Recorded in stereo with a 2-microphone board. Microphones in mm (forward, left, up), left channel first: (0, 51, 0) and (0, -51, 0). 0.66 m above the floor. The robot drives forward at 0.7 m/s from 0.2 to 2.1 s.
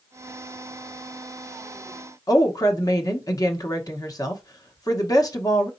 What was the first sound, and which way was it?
A woman speaking, 35° left (ahead or behind).